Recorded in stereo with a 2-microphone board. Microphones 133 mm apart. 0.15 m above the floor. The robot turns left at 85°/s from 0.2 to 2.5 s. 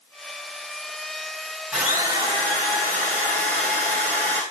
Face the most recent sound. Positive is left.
turn(degrees=-70)